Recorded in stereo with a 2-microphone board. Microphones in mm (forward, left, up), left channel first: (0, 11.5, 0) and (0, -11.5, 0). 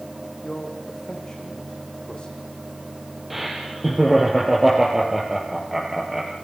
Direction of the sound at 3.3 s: Centre (ahead or behind).